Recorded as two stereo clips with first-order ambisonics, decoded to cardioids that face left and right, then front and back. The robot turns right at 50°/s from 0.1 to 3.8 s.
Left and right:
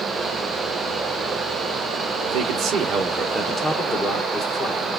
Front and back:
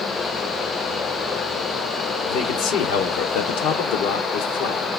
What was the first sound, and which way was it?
A man speaking, 55° right.